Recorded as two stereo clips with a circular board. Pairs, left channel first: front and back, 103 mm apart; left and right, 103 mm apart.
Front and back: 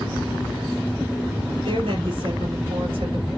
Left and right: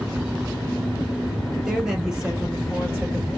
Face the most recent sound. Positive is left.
turn(degrees=-165)